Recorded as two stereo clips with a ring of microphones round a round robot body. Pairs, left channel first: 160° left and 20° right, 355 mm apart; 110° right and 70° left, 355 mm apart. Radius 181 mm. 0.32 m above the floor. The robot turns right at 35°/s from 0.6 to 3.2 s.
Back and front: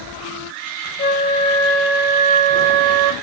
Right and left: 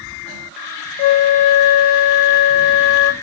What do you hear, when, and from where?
1.0 s a flute: 140° right, 0.6 m; by 3.1 s 65° right, 0.6 m